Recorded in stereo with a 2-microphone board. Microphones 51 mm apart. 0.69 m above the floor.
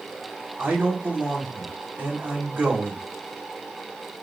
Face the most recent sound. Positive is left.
turn(degrees=-40)  # may be behind; listen again after turning